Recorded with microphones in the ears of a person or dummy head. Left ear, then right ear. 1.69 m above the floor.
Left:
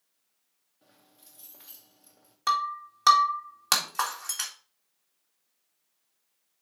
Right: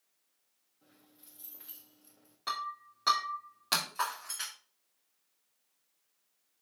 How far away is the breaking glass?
About 2.0 m.